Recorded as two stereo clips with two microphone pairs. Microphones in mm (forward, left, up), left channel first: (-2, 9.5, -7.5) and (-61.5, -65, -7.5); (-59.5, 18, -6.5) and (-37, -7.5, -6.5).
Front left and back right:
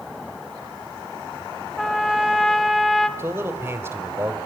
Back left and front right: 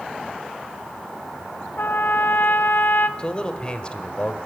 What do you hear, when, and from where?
1.8 s a trumpet: 140° left, 1.1 m
3.2 s a man speaking: straight behind, 1.8 m